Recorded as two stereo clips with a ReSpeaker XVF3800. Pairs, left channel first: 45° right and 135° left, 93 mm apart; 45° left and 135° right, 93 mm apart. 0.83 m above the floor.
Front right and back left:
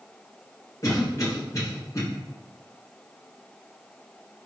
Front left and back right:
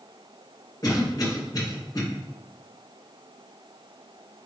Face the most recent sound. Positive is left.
turn(degrees=5)